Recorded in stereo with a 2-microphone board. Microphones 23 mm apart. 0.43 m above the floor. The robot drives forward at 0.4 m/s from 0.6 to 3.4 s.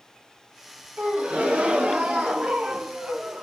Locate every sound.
1.0 s a gasp: 70° right (ahead or behind), 1.8 m; by 3.4 s 60° right (ahead or behind), 1.9 m